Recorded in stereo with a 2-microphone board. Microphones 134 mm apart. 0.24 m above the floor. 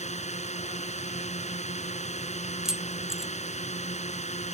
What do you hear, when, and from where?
0.0 s a drone: 60° left (ahead or behind)
2.6 s keys jangling: 5° right (ahead or behind)